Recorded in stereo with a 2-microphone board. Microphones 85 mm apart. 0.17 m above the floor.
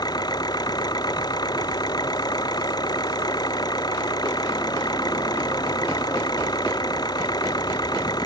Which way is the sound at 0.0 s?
50° left (ahead or behind).